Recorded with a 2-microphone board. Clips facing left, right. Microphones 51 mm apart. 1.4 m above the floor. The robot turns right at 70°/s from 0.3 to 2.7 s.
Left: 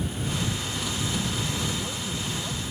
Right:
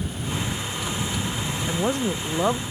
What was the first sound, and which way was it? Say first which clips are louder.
A woman speaking: right 8 dB; 135° right.